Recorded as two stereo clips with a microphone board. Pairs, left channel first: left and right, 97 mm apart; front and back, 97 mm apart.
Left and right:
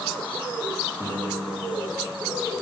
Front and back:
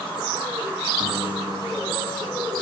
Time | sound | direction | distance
1.0 | a piano | 165° right | 10 m